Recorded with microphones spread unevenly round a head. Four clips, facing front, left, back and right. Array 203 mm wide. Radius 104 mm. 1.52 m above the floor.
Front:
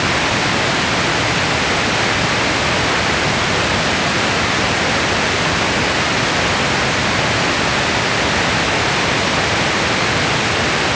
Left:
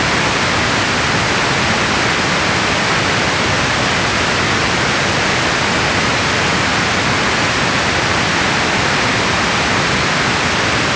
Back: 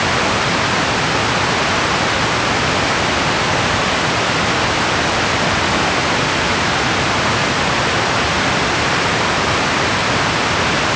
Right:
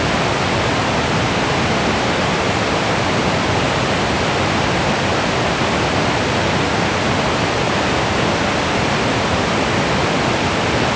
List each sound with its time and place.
Only background noise.